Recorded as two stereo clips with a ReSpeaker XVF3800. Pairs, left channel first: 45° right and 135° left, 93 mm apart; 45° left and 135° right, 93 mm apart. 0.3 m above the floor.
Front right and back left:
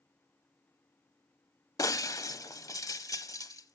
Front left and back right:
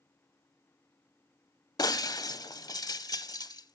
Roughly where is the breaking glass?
Ahead.